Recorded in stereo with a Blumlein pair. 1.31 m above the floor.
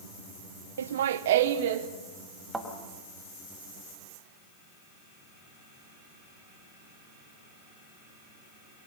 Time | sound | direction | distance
0.8 | laughter | 65° right | 0.6 m
2.5 | a thud | 10° right | 4 m